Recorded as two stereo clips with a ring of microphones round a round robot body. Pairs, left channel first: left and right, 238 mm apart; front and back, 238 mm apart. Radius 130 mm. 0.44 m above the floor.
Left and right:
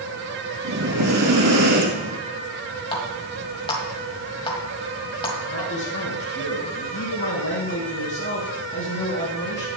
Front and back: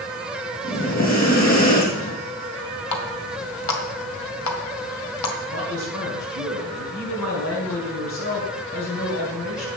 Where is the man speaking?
40° left, 3.5 m.